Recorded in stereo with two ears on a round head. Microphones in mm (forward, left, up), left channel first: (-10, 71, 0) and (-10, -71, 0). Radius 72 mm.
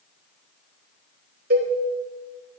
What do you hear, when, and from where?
1.5 s a cowbell: 65° right (ahead or behind), 3 m